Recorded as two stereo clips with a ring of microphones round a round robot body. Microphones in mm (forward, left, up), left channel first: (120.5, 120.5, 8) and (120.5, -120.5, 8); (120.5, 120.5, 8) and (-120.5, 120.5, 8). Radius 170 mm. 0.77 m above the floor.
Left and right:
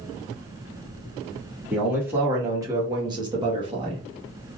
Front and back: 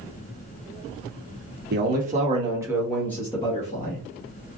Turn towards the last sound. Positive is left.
turn(degrees=-20)